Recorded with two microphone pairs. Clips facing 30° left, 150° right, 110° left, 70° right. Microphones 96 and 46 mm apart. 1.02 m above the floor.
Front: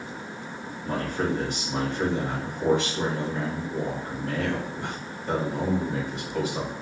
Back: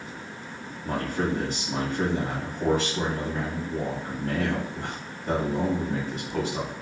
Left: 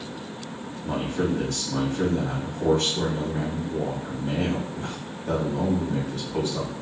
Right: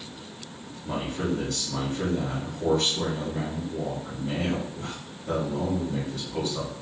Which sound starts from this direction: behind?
A man speaking, at 0.8 s.